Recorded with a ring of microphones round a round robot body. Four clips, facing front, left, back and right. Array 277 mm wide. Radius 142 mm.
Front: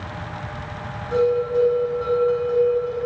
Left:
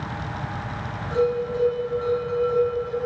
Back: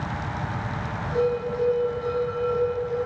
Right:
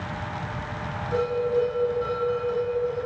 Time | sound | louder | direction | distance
1.1 | a bell | left 1 dB, front 6 dB | 15° left | 4.5 m